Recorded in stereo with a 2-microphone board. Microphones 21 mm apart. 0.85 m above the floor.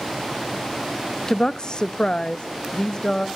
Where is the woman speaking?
30° left (ahead or behind), 0.5 m; by 3.3 s 45° left (ahead or behind), 1.3 m.